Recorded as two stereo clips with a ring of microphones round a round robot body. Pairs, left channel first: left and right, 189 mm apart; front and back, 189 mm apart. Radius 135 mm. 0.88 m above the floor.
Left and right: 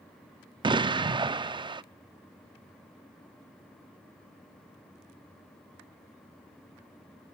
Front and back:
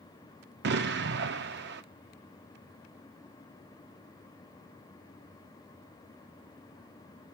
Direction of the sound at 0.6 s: 155° right.